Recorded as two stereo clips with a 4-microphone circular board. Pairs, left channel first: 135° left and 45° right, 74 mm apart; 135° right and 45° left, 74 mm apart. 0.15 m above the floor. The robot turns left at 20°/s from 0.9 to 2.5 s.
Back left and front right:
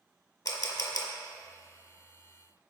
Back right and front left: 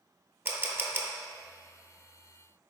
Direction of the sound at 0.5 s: 105° left.